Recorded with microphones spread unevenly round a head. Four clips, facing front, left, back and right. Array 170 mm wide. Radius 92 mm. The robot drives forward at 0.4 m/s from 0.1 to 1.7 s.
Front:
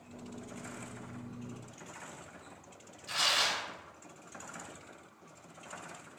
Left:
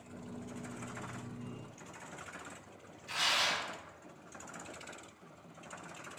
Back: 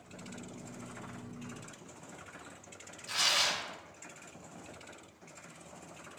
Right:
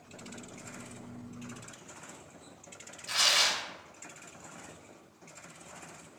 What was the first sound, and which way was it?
Tearing paper, 85° right.